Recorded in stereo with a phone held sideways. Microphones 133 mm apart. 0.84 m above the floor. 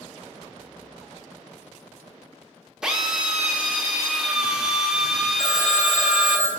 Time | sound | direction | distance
2.8 | a drill | 5° right (ahead or behind) | 0.6 m
5.4 | a phone ringing | 25° left (ahead or behind) | 2.0 m